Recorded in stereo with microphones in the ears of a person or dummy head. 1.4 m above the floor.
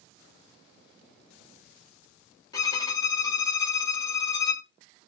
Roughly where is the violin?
Centre.